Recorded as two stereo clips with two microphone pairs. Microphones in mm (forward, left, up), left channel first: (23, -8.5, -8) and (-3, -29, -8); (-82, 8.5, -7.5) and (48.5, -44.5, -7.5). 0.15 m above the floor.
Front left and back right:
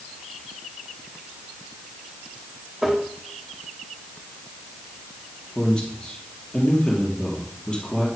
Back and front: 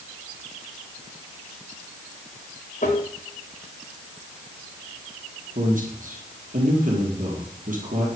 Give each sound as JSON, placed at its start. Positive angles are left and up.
{"t": 2.8, "sound": "tapping", "azimuth_deg": 130, "distance_m": 4.0}
{"t": 5.5, "sound": "a man speaking", "azimuth_deg": -25, "distance_m": 4.0}